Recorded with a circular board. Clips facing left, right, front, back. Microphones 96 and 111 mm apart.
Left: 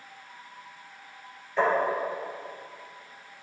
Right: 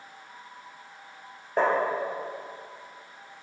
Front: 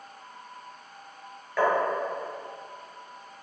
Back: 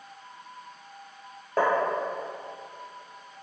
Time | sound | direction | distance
1.6 | tapping | 130° right | 3.5 m